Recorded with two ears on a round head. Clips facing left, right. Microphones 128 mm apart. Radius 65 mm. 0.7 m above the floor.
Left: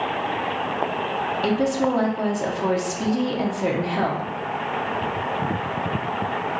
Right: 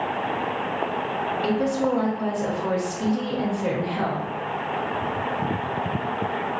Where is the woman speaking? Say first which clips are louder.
Left 2 dB; 60° left (ahead or behind), 0.9 m.